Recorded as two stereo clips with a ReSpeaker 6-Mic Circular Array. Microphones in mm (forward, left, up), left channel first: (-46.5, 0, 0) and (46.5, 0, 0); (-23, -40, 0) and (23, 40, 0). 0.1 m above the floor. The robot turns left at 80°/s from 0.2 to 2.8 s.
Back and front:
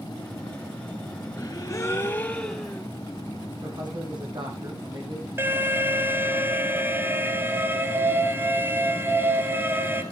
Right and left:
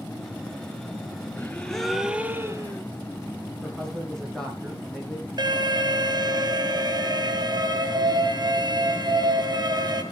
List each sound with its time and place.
1.4 s a gasp: 175° right, 2.0 m; by 2.8 s 70° left, 2.0 m
3.6 s a man speaking: 35° right, 6 m
5.4 s an alarm: 55° left, 2.5 m